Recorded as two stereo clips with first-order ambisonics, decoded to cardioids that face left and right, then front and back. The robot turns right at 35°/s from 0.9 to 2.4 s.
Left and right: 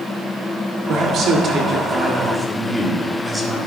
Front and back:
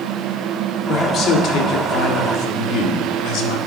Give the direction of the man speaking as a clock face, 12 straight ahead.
2 o'clock.